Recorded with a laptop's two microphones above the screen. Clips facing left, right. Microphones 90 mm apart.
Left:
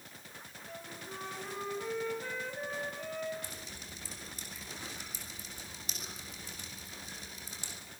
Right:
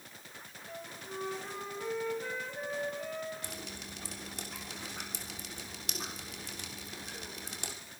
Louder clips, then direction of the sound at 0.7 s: Right 2 dB; 5° right (ahead or behind).